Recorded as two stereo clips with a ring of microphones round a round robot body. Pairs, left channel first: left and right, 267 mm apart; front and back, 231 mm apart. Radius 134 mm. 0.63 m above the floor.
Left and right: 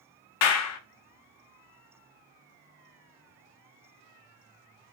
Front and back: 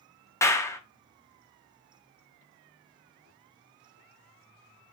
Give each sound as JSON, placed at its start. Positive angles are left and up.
{"t": 0.4, "sound": "a clap", "azimuth_deg": 75, "distance_m": 0.6}